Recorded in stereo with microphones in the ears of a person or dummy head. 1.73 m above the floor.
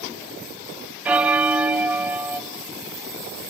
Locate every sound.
1.1 s a bell: 10° right (ahead or behind), 0.6 m